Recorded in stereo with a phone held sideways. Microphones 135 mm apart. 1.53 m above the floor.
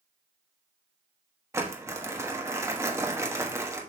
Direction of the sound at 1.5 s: 20° right (ahead or behind).